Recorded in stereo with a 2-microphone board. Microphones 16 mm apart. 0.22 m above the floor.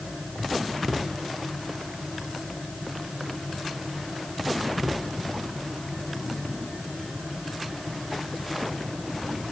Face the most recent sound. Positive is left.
No sound to turn to.